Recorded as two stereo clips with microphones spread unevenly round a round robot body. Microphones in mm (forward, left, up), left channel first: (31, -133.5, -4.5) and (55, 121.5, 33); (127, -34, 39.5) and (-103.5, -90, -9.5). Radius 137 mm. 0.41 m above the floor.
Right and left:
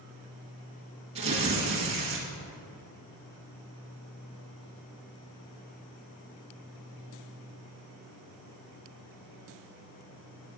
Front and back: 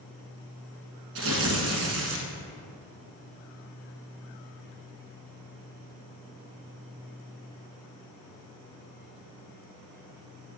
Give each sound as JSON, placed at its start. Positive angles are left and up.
{"t": 1.1, "sound": "tearing paper", "azimuth_deg": 155, "distance_m": 1.4}